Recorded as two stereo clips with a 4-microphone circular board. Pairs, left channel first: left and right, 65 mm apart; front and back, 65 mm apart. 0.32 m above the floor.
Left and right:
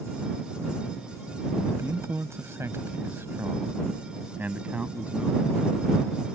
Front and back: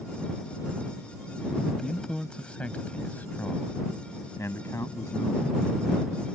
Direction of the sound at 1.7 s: 85° right.